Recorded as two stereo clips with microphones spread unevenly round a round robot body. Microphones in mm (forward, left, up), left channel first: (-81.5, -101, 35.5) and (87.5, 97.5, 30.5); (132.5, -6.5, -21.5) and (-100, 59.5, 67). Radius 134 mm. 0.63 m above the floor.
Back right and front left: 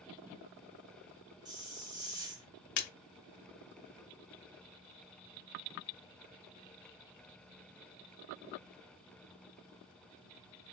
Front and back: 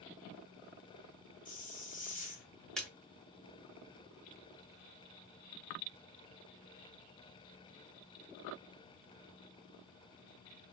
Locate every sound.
1.4 s a hiss: 20° right, 1.7 m
2.8 s a splash: 105° right, 0.7 m